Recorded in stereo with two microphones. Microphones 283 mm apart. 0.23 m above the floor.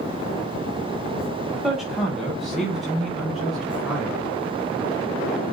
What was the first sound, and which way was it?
A man speaking, centre (ahead or behind).